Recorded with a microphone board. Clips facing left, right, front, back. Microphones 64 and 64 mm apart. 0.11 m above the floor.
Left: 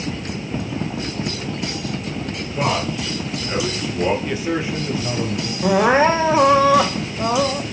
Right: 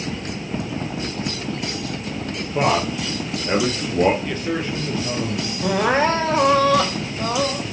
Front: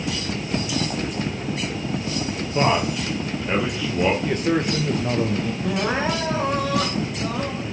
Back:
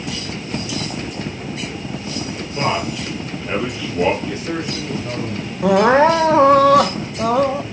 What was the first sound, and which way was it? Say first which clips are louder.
A man speaking: right 2 dB, front 1 dB; 60° right.